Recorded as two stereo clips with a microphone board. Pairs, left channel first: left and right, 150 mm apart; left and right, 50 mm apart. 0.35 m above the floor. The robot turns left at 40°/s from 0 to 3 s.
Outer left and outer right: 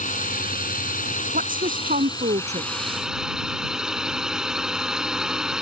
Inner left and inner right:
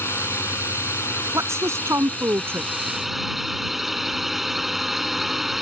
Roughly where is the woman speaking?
Right.